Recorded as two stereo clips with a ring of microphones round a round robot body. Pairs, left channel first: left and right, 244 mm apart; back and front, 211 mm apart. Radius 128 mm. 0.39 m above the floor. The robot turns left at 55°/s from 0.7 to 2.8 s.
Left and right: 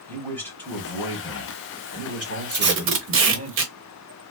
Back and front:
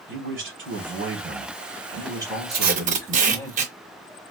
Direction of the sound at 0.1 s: 10° left.